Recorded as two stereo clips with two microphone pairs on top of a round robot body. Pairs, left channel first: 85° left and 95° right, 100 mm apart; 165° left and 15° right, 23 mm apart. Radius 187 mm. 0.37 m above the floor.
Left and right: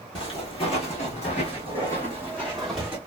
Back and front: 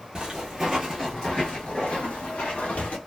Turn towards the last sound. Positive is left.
turn(degrees=175)